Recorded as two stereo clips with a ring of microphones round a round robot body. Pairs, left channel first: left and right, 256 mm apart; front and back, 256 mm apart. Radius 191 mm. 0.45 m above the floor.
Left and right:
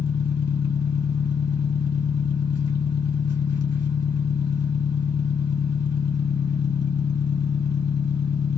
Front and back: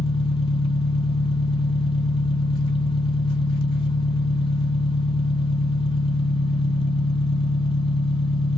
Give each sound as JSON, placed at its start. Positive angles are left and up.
{"t": 0.0, "sound": "an engine running", "azimuth_deg": 70, "distance_m": 1.6}